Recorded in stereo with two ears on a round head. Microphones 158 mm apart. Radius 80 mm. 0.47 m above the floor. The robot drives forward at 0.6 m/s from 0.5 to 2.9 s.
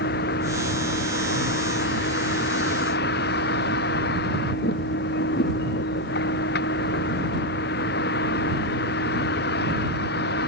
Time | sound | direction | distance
0.0 | a vehicle | 55° left (ahead or behind) | ?